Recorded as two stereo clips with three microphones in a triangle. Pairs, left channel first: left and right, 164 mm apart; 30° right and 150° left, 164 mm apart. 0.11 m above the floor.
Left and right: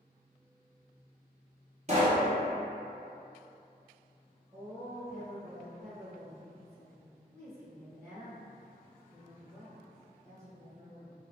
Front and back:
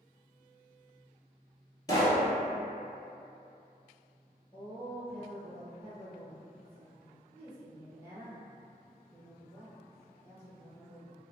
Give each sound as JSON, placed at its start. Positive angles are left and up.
{"t": 1.9, "sound": "a pop", "azimuth_deg": -90, "distance_m": 1.1}
{"t": 4.5, "sound": "a woman speaking", "azimuth_deg": -80, "distance_m": 1.4}